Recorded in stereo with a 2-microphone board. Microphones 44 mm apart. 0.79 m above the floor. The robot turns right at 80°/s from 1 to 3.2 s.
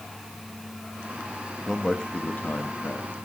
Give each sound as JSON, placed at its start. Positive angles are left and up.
{"t": 1.7, "sound": "a man speaking", "azimuth_deg": -5, "distance_m": 0.9}